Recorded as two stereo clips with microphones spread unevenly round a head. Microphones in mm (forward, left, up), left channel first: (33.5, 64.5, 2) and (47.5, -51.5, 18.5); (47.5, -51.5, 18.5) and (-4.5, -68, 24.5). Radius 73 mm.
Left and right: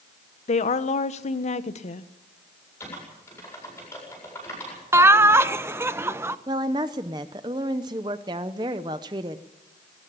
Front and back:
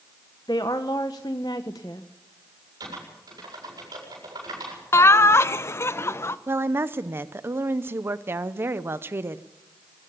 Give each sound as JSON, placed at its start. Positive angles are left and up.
{"t": 0.5, "sound": "a woman speaking", "azimuth_deg": 70, "distance_m": 1.1}
{"t": 2.8, "sound": "typing on a keyboard", "azimuth_deg": 175, "distance_m": 8.0}
{"t": 4.9, "sound": "laughter", "azimuth_deg": -20, "distance_m": 1.1}
{"t": 6.5, "sound": "a woman speaking", "azimuth_deg": -130, "distance_m": 0.7}